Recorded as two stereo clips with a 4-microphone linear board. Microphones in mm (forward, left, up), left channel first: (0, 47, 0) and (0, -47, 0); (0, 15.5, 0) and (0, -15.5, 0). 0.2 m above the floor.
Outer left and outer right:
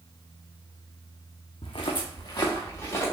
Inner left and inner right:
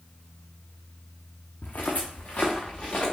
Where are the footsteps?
65° left (ahead or behind), 0.9 m; by 3.1 s 25° left (ahead or behind), 1.8 m.